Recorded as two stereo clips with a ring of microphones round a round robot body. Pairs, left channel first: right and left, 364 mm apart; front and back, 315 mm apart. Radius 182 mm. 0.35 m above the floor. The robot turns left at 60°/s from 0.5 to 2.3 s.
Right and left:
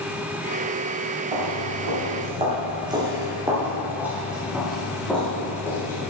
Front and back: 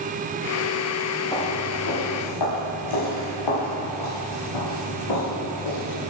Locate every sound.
1.3 s footsteps: 80° left, 5.5 m; by 6.1 s 5° right, 6.5 m